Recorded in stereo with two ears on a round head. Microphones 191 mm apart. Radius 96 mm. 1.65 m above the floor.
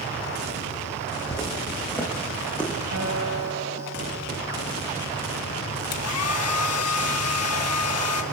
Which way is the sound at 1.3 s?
10° left (ahead or behind).